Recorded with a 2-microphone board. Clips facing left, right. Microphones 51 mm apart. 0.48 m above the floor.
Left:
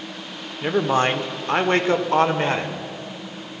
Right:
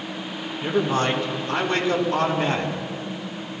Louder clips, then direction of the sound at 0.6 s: Left 3 dB; 30° left (ahead or behind).